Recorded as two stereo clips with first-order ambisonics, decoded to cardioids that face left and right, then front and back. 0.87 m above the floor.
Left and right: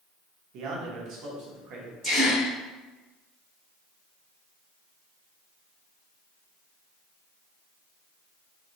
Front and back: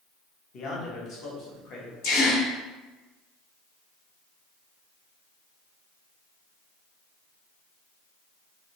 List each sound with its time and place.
0.5 s a man speaking: 55° right, 0.8 m
2.0 s a gasp: 15° right, 1.8 m